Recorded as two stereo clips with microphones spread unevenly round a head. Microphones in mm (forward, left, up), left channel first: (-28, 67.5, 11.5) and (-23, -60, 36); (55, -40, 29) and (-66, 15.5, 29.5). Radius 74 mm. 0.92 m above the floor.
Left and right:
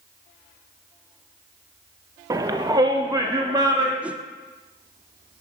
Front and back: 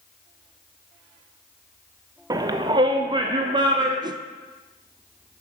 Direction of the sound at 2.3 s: 155° right.